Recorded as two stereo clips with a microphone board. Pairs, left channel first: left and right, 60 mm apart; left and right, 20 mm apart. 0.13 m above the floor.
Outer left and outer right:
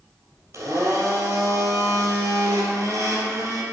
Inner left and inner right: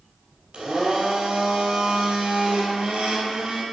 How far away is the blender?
About 3 m.